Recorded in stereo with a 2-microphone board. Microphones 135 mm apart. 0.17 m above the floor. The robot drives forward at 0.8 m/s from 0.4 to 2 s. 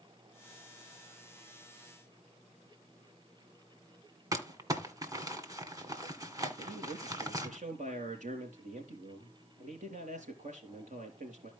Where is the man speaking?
70° right (ahead or behind), 4 m.